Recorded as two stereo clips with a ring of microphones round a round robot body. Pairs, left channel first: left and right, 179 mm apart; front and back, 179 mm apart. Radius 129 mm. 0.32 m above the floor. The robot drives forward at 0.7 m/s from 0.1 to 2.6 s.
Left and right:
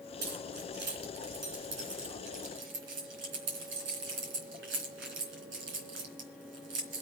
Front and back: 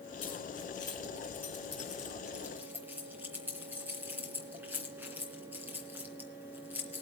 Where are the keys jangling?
65° right, 3.5 m; by 7.0 s 100° right, 3 m.